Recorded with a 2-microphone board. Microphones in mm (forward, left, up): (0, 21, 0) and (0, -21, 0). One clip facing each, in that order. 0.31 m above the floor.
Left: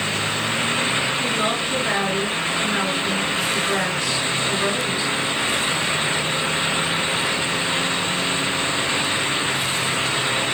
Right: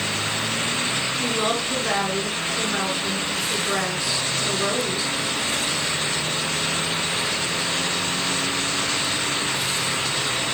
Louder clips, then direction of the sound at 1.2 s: Left 1 dB; 5° right (ahead or behind).